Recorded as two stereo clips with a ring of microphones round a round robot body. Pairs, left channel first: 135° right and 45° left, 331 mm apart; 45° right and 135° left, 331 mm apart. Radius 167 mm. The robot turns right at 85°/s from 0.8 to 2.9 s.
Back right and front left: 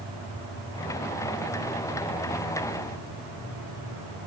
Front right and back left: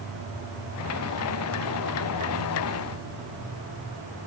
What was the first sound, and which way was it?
Only background noise.